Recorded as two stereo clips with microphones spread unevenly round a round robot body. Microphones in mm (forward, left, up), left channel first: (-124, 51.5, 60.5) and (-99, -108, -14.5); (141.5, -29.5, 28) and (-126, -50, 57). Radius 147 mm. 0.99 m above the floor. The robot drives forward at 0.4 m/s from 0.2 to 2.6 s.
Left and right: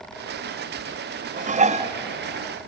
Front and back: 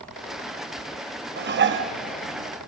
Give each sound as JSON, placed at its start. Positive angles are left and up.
{"t": 1.4, "sound": "dishes clattering", "azimuth_deg": -120, "distance_m": 1.0}